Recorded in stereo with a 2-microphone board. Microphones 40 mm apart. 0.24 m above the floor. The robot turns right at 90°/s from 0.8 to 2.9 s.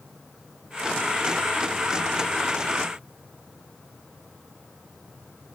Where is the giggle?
I don't hear a giggle.